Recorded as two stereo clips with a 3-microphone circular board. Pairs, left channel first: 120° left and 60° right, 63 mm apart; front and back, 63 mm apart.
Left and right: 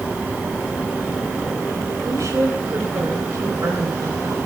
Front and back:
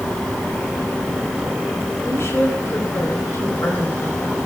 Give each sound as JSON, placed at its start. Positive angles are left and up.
{"t": 2.0, "sound": "a woman speaking", "azimuth_deg": -40, "distance_m": 4.0}